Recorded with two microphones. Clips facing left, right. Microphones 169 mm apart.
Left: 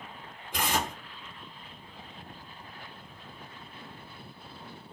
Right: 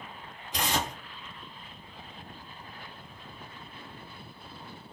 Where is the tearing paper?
55° left (ahead or behind), 2.5 m.